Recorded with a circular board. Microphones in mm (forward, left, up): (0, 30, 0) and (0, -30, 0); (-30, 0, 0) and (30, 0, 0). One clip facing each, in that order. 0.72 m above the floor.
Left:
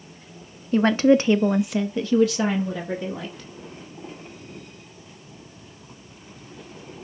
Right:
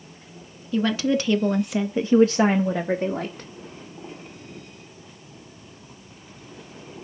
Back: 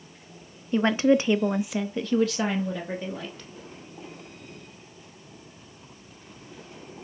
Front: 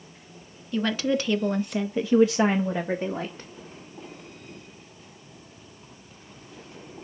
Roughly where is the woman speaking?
Behind left.